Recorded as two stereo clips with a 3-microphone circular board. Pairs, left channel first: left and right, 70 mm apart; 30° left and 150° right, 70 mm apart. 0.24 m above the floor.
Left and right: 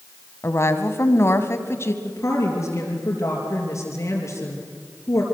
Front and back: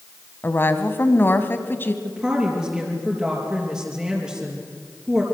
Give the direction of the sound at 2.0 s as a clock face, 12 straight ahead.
8 o'clock.